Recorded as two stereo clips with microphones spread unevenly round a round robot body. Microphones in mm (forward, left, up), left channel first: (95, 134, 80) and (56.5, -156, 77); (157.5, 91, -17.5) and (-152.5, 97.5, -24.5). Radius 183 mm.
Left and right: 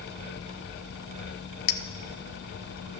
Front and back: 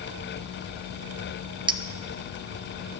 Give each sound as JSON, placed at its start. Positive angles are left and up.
{"t": 1.7, "sound": "a clink", "azimuth_deg": 105, "distance_m": 0.6}